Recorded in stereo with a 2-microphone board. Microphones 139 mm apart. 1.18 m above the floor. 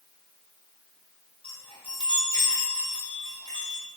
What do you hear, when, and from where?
1.4 s a chime: 40° left (ahead or behind), 3 m